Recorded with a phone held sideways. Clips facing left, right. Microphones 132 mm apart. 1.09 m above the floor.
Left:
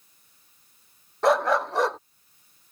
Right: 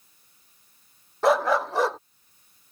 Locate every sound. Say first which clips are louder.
1.2 s a dog barking: even; centre (ahead or behind)